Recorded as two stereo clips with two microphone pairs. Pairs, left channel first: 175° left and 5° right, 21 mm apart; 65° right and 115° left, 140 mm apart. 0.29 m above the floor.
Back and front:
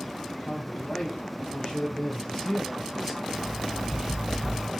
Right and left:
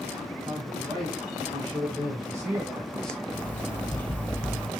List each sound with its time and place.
0.5 s a man speaking: 170° left, 3 m; by 3.2 s straight ahead, 1.0 m
3.3 s an alarm clock: 5° left, 0.8 m